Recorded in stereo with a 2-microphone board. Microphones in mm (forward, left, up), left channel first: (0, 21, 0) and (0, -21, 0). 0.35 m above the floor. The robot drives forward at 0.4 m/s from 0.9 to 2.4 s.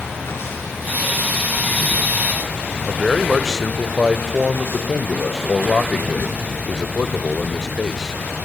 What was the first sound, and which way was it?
Running water, 75° left (ahead or behind).